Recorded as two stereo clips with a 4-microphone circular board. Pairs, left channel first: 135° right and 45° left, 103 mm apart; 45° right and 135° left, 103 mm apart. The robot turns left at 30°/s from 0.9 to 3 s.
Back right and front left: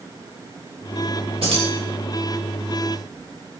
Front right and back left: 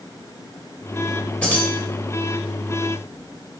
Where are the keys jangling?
35° left, 3.5 m; by 1.7 s 25° left, 3.5 m.